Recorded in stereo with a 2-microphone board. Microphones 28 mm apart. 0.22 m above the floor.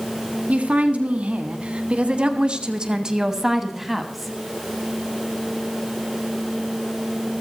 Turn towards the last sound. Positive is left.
turn(degrees=0)  # may be behind; listen again after turning